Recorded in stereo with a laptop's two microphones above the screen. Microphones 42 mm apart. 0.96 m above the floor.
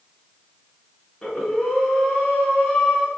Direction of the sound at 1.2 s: 10° left (ahead or behind).